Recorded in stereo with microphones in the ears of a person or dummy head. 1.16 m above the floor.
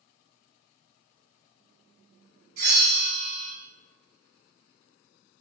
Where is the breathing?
I don't hear breathing.